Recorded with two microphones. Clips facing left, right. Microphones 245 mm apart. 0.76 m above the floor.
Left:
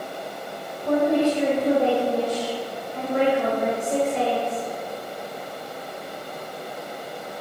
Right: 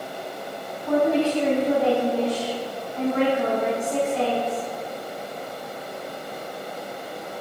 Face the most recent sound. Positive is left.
turn(degrees=65)  # may be behind; listen again after turning